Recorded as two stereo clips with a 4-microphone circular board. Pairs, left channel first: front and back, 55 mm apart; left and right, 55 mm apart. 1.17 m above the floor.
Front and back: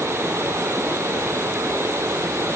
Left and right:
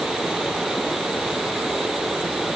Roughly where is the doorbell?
No doorbell in this recording.